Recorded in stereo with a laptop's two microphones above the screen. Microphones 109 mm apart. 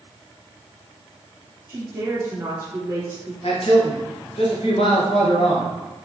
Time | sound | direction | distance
1.7 | a woman speaking | 20° right (ahead or behind) | 1.1 m
3.4 | a man speaking | 60° left (ahead or behind) | 1.0 m